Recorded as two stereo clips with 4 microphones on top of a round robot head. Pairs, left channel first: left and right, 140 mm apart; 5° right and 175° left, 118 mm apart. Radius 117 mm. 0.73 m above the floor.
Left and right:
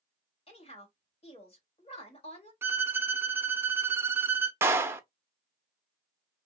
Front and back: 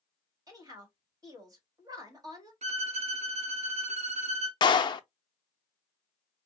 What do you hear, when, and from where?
0.5 s a woman speaking: 125° left, 1.9 m
2.6 s a violin: 165° right, 0.6 m
4.6 s a clap: 25° right, 0.5 m